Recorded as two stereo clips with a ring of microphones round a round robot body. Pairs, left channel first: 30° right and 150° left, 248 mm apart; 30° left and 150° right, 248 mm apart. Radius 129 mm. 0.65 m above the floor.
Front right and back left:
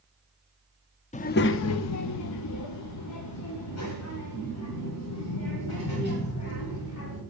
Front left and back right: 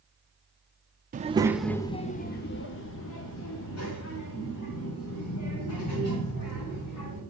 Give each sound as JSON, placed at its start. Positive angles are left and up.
{"t": 1.1, "sound": "a child speaking", "azimuth_deg": -95, "distance_m": 0.5}